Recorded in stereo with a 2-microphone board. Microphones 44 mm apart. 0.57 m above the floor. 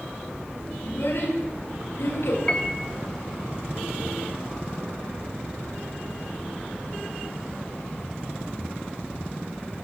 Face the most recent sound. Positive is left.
turn(degrees=20)  # may be behind; listen again after turning